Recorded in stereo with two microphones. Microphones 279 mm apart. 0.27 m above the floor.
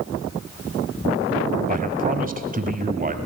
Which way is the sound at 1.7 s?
30° right (ahead or behind).